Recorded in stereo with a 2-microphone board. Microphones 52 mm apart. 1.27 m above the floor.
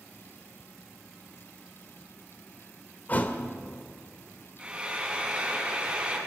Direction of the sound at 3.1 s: 30° left (ahead or behind).